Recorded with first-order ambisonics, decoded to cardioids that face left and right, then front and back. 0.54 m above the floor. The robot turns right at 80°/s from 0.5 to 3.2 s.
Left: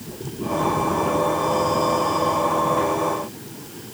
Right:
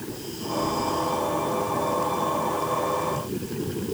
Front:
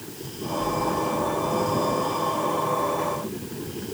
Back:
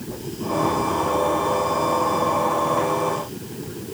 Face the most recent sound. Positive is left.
No sound to turn to.